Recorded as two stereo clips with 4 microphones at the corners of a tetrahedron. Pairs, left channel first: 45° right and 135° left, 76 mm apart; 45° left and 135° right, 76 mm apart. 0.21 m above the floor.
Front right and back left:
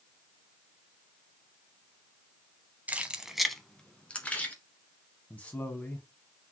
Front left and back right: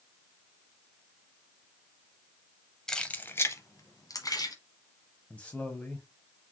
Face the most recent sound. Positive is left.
turn(degrees=0)